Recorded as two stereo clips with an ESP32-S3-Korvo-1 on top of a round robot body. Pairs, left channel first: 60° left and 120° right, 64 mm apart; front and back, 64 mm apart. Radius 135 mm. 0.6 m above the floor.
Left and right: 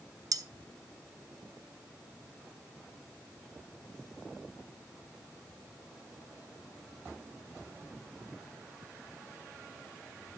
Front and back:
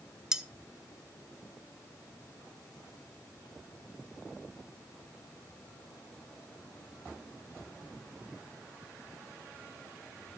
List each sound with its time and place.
0.3 s cutlery clinking: 100° right, 0.8 m